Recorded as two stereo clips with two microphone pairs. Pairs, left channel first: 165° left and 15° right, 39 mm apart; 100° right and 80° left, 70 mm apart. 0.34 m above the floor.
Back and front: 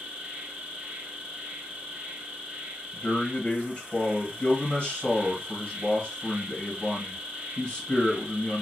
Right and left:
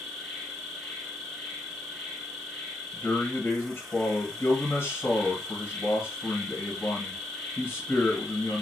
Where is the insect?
20° right, 1.1 m.